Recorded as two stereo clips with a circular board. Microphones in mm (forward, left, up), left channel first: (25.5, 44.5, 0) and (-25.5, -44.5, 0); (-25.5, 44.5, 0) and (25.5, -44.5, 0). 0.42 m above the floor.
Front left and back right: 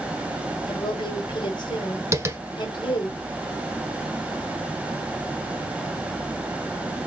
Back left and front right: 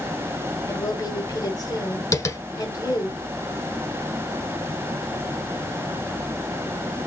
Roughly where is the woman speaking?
Left.